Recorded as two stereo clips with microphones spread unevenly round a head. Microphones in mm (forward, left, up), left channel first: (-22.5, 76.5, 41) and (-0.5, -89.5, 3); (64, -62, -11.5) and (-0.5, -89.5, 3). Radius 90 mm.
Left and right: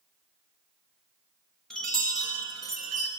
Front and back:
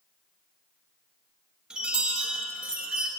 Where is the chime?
160° left, 0.9 m.